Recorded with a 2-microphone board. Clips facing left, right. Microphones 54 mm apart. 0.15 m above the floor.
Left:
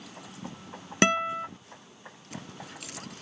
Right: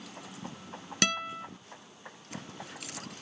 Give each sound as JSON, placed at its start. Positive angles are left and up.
{"t": 1.0, "sound": "a guitar", "side_deg": 30}